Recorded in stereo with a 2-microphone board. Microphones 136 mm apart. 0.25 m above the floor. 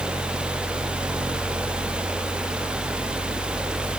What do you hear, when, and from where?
Only background noise.